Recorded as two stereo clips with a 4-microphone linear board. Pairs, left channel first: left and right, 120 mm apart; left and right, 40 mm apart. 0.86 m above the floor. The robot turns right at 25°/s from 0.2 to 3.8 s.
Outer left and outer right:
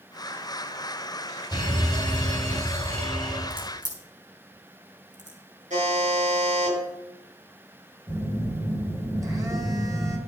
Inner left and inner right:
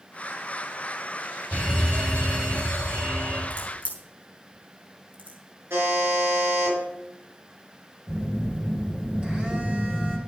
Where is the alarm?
150° right, 4.5 m; by 3.4 s 105° right, 4.5 m.